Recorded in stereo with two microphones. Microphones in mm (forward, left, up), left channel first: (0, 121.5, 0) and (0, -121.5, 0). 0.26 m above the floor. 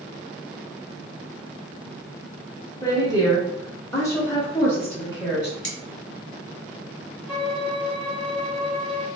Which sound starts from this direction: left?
Cutlery clinking, at 5.6 s.